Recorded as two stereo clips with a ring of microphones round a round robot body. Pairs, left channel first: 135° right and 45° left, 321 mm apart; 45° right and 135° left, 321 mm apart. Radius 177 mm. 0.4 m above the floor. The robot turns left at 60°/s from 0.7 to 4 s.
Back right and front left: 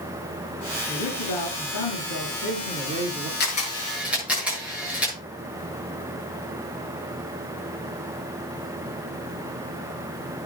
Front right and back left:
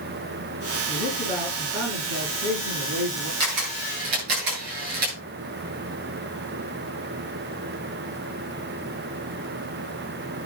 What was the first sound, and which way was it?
A man speaking, 80° right.